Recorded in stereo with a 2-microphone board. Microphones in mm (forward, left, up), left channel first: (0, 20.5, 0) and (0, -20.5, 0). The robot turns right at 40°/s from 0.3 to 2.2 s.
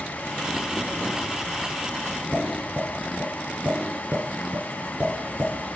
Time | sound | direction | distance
2.3 | tapping | 40° right (ahead or behind) | 3 m